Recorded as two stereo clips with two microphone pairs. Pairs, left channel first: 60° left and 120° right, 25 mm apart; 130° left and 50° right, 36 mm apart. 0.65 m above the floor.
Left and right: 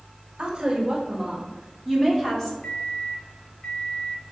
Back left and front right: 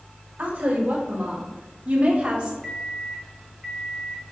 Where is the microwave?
45° left, 1.3 m.